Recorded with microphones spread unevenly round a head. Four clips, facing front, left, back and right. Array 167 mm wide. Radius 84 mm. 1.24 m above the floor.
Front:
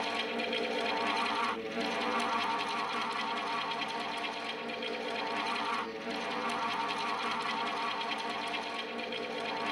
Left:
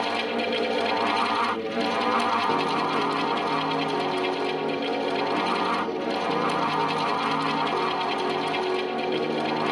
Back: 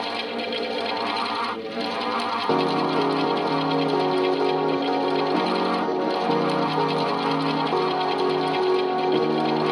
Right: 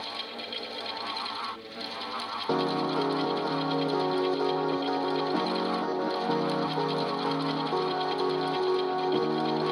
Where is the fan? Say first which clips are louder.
Left 13 dB, back 7 dB; 120° left.